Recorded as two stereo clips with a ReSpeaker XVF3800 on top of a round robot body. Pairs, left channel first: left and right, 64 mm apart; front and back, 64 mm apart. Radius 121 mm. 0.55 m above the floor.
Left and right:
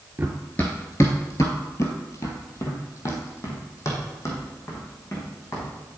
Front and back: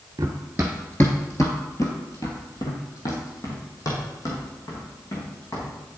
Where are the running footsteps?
160° right, 0.5 m; by 5.7 s 45° left, 3 m.